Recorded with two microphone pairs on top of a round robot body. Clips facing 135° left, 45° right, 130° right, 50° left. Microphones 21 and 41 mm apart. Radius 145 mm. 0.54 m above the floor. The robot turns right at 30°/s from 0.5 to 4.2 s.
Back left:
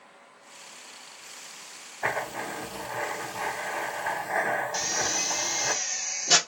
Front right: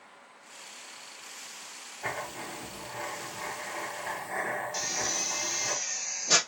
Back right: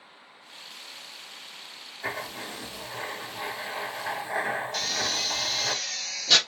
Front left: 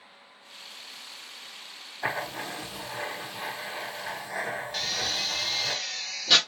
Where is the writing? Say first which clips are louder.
Back left 6 dB, front left 3 dB; 105° left, 1.0 m; by 5.7 s 170° left, 1.0 m.